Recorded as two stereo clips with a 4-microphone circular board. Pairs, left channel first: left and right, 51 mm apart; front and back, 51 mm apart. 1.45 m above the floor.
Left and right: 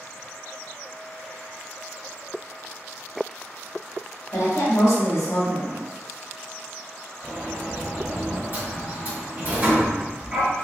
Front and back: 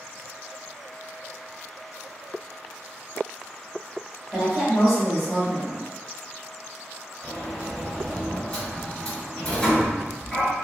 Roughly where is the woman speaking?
Left.